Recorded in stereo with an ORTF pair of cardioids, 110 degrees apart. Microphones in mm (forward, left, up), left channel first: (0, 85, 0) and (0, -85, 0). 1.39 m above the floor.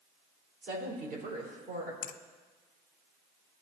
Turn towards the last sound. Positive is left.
turn(degrees=60)